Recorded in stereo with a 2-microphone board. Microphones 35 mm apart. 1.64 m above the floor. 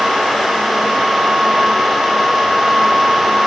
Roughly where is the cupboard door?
No cupboard door in this recording.